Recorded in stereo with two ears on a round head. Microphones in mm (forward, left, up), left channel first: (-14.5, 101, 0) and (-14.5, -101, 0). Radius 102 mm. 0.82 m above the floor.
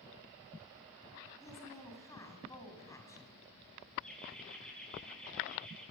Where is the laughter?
5° left (ahead or behind), 9 m.